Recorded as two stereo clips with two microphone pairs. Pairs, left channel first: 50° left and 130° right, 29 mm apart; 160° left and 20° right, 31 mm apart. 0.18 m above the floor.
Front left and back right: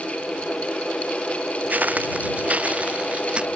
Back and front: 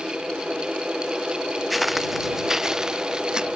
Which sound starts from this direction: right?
Footsteps, at 1.7 s.